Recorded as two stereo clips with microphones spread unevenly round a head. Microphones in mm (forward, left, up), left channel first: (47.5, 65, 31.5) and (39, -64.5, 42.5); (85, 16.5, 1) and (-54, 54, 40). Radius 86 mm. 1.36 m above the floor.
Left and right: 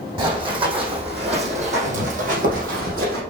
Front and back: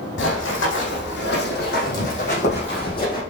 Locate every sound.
0.2 s running footsteps: 40° right, 4.5 m; by 3.2 s 90° right, 4 m